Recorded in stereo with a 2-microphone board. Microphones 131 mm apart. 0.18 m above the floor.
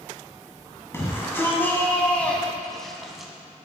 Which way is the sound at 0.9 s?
20° left (ahead or behind).